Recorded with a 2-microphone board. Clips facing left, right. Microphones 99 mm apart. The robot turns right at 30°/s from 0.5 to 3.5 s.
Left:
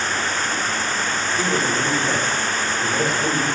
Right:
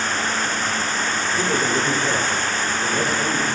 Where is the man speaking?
50° right, 3 m; by 3.5 s 10° left, 3 m.